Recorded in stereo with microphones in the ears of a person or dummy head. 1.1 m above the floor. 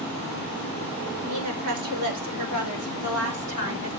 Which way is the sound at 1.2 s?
70° right (ahead or behind).